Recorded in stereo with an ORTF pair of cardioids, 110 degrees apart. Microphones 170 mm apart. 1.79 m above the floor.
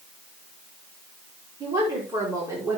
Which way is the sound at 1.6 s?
25° right.